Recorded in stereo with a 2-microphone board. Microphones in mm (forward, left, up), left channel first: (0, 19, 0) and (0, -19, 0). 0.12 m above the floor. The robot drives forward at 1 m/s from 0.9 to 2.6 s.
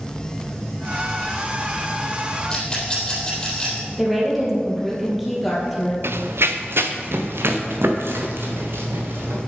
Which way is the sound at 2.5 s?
20° left (ahead or behind).